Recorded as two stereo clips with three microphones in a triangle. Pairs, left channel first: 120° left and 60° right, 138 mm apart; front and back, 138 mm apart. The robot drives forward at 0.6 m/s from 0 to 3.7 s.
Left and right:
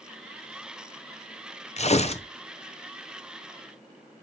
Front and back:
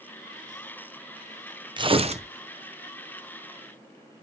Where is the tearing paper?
135° left, 0.6 m; by 2.3 s 155° left, 0.8 m.